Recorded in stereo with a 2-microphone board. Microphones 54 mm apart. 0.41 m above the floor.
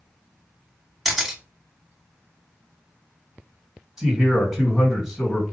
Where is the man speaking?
10° right (ahead or behind), 1.9 m.